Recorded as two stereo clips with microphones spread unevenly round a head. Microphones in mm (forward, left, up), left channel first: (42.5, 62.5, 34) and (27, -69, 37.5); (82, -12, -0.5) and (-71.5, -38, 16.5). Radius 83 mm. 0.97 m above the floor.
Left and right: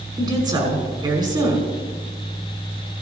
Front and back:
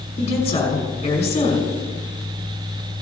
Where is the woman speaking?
40° right, 5.5 m.